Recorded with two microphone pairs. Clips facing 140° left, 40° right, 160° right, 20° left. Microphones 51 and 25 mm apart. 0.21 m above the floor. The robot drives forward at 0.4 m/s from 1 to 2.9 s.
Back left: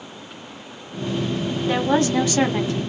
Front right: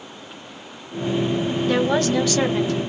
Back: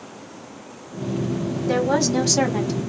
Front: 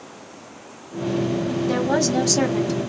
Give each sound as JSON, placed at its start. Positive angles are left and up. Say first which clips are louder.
{"t": 1.7, "sound": "a woman speaking", "louder": "back left 1 dB, back 2 dB", "azimuth_deg": 120, "distance_m": 1.0}